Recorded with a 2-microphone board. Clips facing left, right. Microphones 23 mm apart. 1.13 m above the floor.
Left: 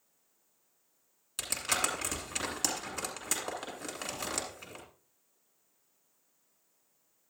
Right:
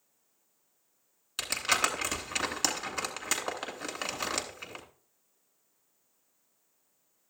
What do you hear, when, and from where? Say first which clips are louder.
1.4 s crumpling: right 4 dB; 30° right (ahead or behind), 2 m